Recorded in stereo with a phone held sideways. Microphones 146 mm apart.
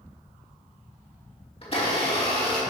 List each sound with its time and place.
1.6 s a blender: 40° left (ahead or behind), 2.5 m